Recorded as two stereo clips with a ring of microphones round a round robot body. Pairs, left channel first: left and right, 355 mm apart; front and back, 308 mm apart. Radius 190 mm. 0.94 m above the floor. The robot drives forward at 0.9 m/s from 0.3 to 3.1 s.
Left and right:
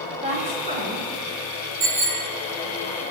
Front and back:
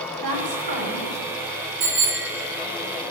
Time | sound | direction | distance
0.2 | a woman speaking | 160° right | 3.5 m
1.8 | a bicycle bell | 160° right | 3 m